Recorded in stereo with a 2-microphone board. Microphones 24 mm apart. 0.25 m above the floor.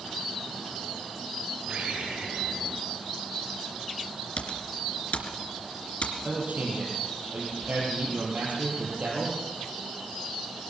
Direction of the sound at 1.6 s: 80° right.